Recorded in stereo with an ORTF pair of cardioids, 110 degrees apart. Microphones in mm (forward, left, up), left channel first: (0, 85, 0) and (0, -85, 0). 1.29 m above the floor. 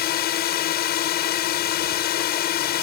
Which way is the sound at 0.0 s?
70° left.